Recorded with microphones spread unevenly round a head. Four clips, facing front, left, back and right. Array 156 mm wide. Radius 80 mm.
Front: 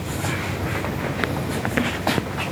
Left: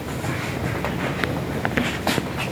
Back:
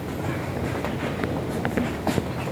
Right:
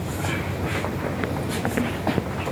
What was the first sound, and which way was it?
Only background noise.